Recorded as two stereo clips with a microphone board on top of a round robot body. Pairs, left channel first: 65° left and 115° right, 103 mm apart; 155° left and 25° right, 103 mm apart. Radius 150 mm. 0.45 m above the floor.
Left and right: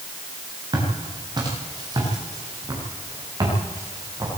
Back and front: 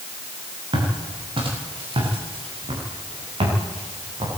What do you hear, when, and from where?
0.7 s footsteps: 60° right, 8 m